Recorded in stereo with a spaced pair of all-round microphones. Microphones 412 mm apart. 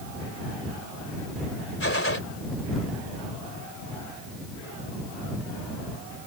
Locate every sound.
1.8 s a gunshot: 30° left (ahead or behind)